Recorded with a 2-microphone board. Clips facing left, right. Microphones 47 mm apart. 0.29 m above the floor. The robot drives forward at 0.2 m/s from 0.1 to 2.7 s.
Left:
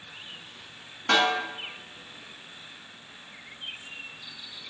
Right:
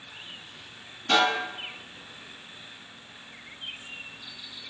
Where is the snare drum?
65° left (ahead or behind), 1.3 m.